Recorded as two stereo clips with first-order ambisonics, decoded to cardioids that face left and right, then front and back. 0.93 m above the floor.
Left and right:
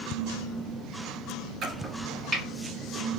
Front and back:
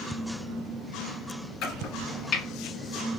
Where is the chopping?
30° right, 1.4 m.